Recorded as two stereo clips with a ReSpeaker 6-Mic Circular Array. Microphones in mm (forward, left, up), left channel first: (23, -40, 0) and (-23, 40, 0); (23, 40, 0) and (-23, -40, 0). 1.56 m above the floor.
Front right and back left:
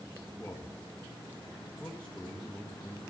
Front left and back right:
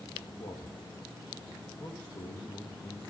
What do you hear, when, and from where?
0.4 s a man speaking: 20° left, 2 m